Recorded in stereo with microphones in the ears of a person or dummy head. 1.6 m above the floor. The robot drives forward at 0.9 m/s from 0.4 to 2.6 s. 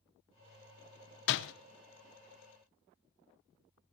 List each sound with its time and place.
1.3 s a door slam: 55° left (ahead or behind), 0.8 m; by 1.5 s 60° left (ahead or behind), 0.8 m